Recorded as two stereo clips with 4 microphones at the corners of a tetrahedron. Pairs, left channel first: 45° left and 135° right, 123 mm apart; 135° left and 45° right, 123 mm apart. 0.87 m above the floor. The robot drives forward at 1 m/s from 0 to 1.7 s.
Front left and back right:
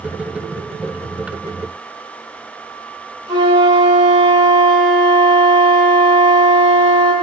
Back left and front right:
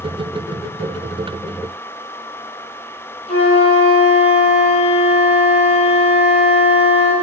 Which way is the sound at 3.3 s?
170° left.